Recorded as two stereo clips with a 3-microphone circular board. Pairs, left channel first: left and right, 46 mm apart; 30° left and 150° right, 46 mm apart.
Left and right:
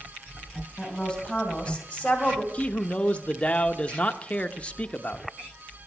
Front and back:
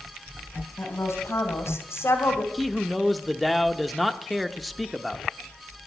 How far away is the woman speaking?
About 3 m.